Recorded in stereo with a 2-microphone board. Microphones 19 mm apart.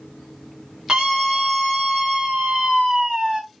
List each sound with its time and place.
0.9 s a scream: 35° right (ahead or behind), 1.4 m